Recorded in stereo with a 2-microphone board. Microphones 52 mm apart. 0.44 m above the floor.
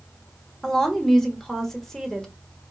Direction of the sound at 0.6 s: 10° left (ahead or behind).